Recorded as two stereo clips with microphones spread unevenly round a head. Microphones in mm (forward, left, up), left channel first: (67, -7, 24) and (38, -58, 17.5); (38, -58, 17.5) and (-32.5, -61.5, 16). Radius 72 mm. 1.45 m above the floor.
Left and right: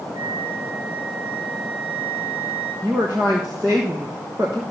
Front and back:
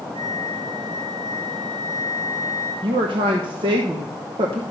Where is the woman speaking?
165° left, 1.0 m.